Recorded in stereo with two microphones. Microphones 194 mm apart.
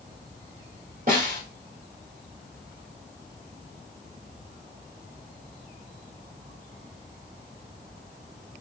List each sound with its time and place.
1.1 s a snare drum: 50° right (ahead or behind), 1.5 m